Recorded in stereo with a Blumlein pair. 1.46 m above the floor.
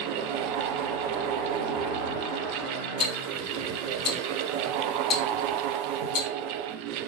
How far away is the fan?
About 0.8 m.